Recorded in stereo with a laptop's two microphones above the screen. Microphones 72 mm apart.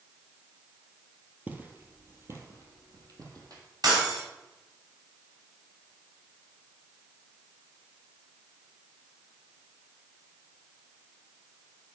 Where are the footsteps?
20° right (ahead or behind), 1.3 m; by 3.6 s 55° right (ahead or behind), 2 m.